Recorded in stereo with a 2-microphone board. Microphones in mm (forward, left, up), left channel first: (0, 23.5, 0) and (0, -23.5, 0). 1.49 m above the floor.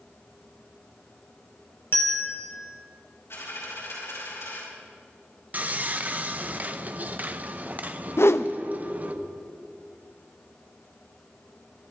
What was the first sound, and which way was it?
A bell, 55° left (ahead or behind).